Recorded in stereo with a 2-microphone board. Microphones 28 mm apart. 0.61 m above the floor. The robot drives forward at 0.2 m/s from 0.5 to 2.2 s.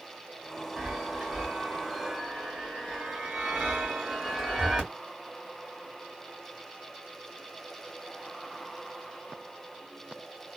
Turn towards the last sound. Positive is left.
turn(degrees=-20)  # may be behind; listen again after turning